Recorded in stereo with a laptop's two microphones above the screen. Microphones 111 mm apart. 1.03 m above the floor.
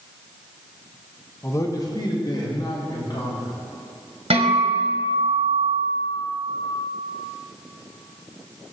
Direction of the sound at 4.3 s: 70° right (ahead or behind).